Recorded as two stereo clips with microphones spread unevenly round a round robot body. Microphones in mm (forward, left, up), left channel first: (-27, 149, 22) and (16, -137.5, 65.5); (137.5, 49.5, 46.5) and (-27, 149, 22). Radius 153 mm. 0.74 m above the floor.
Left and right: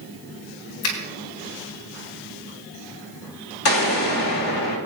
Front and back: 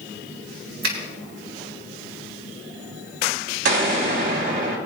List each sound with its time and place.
0.8 s a finger snap: 140° left, 4.5 m
3.6 s an explosion: 130° left, 3.5 m